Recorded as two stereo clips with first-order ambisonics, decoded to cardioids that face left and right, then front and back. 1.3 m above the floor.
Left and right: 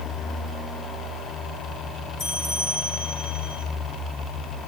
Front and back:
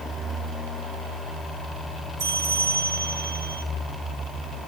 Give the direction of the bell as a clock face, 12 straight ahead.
7 o'clock.